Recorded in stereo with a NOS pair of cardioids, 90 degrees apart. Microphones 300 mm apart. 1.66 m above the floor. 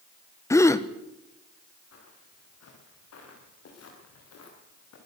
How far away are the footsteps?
About 8 m.